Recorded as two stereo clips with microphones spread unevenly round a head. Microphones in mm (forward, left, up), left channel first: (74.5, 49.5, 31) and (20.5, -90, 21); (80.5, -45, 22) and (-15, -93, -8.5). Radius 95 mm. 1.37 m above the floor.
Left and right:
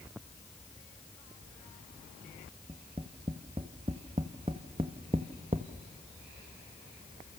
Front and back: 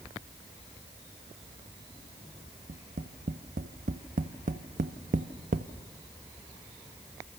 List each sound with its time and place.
2.7 s tapping: 175° right, 1.0 m